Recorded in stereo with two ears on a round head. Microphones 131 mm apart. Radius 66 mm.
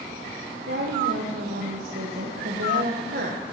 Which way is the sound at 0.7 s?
65° right (ahead or behind).